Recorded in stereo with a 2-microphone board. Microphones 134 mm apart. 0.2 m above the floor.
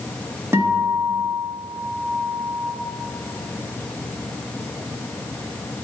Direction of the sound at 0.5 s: 20° right (ahead or behind).